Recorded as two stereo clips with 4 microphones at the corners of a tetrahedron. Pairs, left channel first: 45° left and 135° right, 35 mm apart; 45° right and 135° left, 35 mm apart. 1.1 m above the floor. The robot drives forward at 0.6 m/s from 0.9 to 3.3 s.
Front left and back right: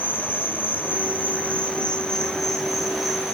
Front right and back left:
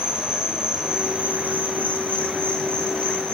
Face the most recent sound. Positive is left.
turn(degrees=140)